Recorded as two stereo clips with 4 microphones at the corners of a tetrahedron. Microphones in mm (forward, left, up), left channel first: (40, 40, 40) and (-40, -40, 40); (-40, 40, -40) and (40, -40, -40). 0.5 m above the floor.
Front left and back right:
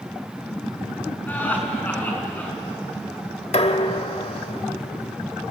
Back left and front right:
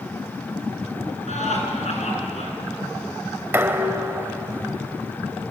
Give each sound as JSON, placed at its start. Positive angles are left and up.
{"t": 1.3, "sound": "laughter", "azimuth_deg": 120, "distance_m": 5.5}
{"t": 3.5, "sound": "dishes clattering", "azimuth_deg": 25, "distance_m": 1.4}